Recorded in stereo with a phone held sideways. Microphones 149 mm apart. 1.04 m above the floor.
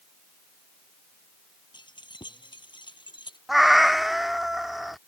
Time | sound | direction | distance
1.7 | keys jangling | 30° left (ahead or behind) | ?
3.5 | a cat meowing | centre (ahead or behind) | ?